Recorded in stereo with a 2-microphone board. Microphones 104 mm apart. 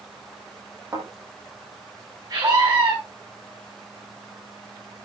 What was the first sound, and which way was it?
A thud, 30° right (ahead or behind).